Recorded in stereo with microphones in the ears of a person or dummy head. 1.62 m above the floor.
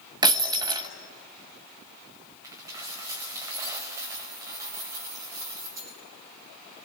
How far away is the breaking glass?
About 1.6 m.